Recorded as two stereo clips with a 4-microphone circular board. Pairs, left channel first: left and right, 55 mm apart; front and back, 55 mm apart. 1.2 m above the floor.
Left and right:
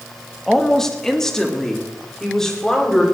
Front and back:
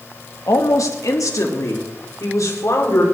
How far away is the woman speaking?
About 1.9 m.